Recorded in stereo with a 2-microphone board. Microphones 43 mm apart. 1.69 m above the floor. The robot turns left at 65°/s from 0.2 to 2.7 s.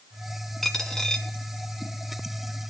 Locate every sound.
0.6 s a dropped coin: 5° left (ahead or behind), 1.1 m; by 1.3 s 20° left (ahead or behind), 1.1 m